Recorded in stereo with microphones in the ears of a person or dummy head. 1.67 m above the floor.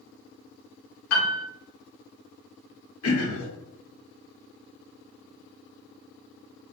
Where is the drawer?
No drawer in this recording.